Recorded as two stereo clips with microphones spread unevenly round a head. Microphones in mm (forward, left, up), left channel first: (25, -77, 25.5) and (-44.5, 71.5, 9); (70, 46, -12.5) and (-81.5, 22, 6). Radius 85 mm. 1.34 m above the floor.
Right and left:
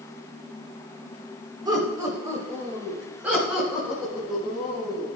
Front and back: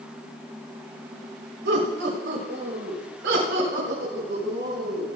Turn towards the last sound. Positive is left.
turn(degrees=-155)